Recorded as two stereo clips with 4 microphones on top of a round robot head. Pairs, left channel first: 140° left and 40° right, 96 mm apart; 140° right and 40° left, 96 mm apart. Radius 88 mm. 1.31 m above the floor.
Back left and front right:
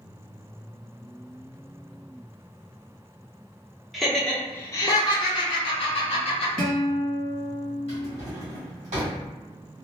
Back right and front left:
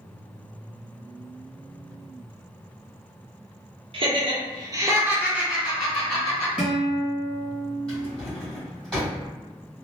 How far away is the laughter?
About 0.8 m.